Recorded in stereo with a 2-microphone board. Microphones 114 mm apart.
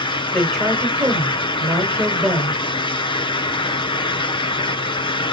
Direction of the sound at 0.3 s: 5° right (ahead or behind).